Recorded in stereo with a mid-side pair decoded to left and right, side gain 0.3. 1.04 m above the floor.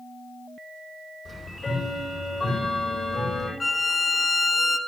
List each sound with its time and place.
1.2 s ticking: 40° left, 9 m
3.6 s a violin: 40° left, 1.4 m